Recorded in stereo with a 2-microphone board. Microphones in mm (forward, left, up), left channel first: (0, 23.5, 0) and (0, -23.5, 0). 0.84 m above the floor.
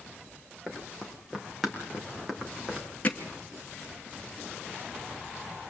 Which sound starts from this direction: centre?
Running footsteps, at 0.7 s.